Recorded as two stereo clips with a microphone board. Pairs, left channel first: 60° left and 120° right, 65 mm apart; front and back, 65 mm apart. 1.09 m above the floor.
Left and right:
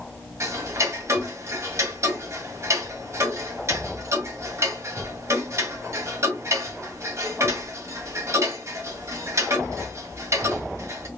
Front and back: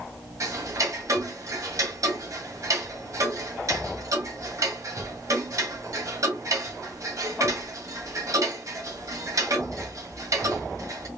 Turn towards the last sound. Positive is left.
turn(degrees=-155)